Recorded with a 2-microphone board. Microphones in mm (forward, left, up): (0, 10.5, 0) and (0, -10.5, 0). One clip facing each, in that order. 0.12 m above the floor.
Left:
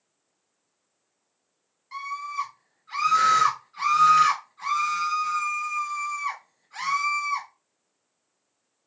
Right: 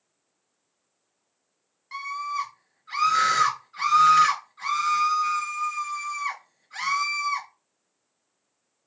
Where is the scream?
35° right (ahead or behind), 1.9 m.